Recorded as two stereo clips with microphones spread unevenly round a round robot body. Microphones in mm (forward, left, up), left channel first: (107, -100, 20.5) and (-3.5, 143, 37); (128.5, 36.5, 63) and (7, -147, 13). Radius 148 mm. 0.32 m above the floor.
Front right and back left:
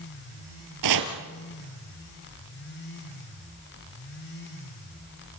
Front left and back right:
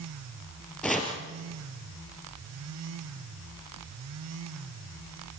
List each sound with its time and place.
0.8 s chopping: 145° left, 3 m